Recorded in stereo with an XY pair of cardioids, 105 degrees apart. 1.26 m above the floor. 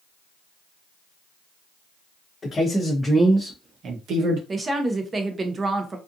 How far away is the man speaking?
About 1.1 m.